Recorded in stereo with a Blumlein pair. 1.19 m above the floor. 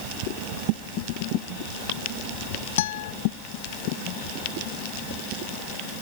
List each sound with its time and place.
2.8 s a guitar: 55° left